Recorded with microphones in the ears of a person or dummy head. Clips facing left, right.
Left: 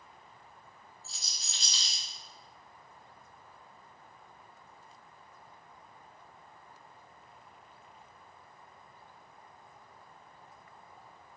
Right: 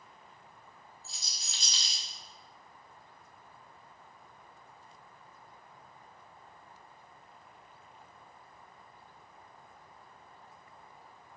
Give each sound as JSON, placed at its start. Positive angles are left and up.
{"t": 1.0, "sound": "a rattle", "side_deg": -50, "distance_m": 1.0}